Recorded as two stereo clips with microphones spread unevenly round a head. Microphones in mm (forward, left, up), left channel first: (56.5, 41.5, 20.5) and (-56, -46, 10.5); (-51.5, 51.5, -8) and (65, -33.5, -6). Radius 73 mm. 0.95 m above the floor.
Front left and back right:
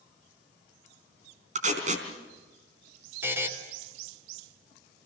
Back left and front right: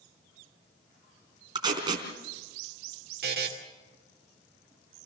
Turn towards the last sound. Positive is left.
turn(degrees=-65)